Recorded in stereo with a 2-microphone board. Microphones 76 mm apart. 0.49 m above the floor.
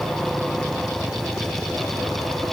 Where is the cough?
I don't hear a cough.